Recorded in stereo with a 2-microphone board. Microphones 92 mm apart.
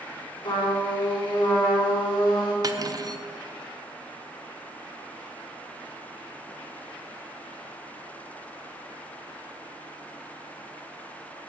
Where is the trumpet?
55° left (ahead or behind), 4 m.